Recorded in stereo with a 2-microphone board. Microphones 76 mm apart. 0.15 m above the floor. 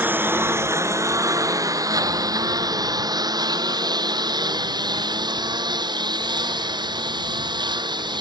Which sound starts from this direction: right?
A lawn mower, at 0.0 s.